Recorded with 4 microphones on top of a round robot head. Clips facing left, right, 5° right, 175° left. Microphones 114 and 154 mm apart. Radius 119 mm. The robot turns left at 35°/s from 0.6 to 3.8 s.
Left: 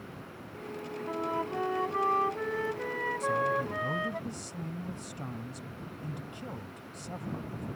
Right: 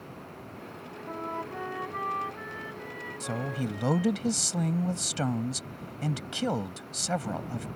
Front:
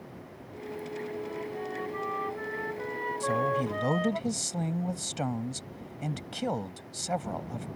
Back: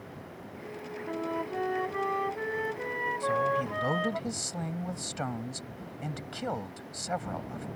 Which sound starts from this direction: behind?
A flute, at 1.1 s.